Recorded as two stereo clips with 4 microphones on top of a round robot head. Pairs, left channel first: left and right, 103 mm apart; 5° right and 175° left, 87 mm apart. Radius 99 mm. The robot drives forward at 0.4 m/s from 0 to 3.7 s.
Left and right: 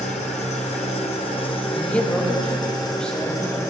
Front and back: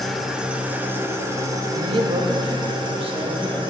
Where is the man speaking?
170° left, 0.8 m; by 3.6 s 175° left, 1.5 m.